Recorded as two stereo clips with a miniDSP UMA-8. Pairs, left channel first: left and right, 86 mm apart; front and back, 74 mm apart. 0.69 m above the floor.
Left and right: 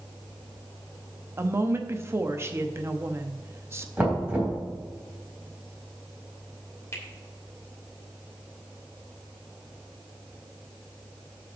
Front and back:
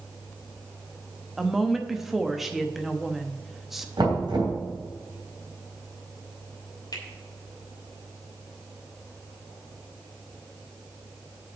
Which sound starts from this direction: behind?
Knocking, at 4.0 s.